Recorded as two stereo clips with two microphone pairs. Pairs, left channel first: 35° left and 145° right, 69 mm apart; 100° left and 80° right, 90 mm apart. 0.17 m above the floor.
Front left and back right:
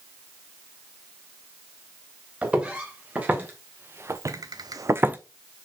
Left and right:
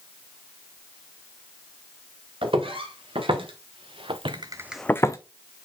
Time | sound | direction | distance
2.4 | footsteps | 75° right | 3.5 m